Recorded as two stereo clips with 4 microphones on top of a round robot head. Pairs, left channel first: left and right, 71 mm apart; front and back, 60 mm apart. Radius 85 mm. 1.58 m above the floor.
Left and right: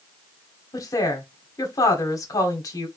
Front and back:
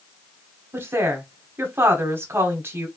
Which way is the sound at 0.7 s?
130° left.